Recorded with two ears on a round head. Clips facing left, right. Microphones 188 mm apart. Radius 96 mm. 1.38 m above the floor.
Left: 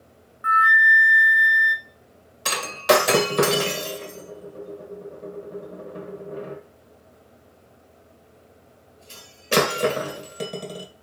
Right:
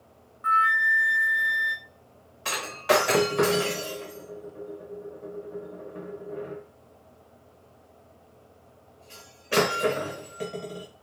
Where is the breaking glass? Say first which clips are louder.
Left 5 dB; 50° left (ahead or behind), 0.8 m.